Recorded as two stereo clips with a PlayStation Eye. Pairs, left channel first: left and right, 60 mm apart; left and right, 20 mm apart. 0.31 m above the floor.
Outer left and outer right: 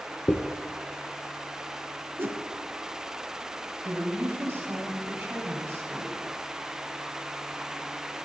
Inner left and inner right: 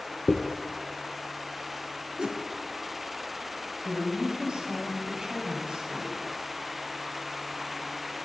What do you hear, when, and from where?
0.3 s a dropped coin: 40° left (ahead or behind), 0.6 m
2.2 s a whoosh: 40° right (ahead or behind), 1.1 m
3.8 s a woman speaking: 35° right (ahead or behind), 2 m